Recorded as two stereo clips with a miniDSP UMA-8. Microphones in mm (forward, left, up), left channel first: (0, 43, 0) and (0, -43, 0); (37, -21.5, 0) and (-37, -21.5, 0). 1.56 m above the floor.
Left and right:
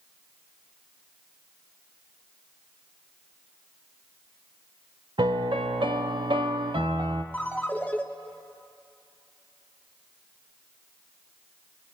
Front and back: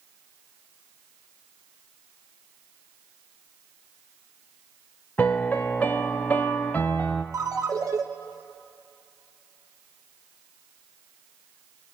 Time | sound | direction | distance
5.2 | a piano | 70° right | 0.8 m
7.3 | a ringtone | 160° left | 1.0 m